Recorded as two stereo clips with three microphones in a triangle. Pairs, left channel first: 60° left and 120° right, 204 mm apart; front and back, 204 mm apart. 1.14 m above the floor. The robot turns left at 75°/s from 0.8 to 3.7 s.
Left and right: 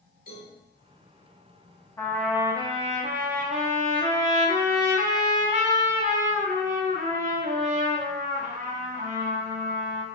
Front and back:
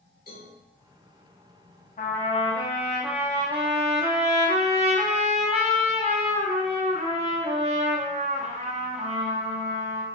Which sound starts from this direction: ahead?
A trumpet, at 2.0 s.